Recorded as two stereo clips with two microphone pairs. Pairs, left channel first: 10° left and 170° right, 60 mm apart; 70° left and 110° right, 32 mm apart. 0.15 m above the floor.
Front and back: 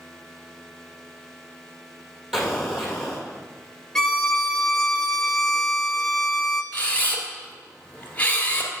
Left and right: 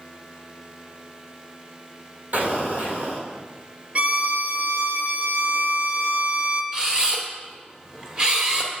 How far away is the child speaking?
I don't hear a child speaking.